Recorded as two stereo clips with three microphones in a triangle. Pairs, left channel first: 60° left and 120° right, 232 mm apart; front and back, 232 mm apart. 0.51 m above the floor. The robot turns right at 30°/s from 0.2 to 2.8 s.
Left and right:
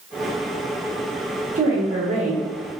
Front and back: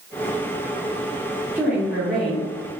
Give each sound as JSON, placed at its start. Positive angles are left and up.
{"t": 1.6, "sound": "a woman speaking", "azimuth_deg": -105, "distance_m": 1.1}